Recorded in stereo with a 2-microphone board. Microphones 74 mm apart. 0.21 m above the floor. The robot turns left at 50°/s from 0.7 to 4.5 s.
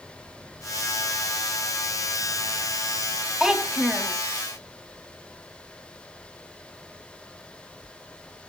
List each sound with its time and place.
3.4 s a child speaking: 10° right (ahead or behind), 0.5 m; by 4.2 s 20° right (ahead or behind), 0.5 m